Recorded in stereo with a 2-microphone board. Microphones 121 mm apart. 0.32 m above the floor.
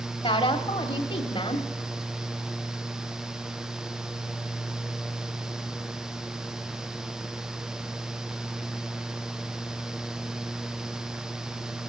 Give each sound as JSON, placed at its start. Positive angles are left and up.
{"t": 0.2, "sound": "a woman speaking", "side_deg": 45, "distance_m": 1.3}